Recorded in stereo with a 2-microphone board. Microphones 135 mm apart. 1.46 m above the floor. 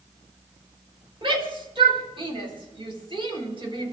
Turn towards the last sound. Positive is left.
turn(degrees=-40)  # may be behind; listen again after turning